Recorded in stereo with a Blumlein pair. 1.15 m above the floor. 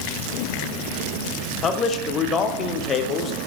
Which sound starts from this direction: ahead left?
A man speaking, at 1.6 s.